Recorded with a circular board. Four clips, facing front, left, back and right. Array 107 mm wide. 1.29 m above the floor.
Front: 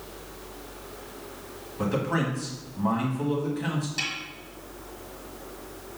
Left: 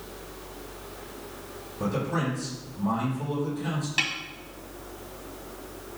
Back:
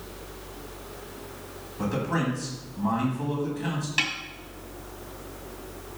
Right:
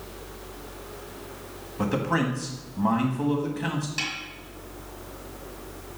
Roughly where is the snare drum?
Behind left.